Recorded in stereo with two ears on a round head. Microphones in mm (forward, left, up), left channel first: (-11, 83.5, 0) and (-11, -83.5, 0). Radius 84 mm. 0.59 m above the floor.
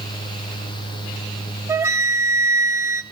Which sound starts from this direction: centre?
A flute, at 1.7 s.